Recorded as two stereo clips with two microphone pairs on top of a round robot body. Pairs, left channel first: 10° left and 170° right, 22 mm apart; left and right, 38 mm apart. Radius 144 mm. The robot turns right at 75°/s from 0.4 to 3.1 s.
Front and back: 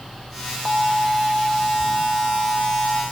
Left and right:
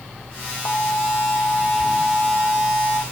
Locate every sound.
0.7 s an alarm: 80° left, 3 m; by 3.0 s 105° right, 3 m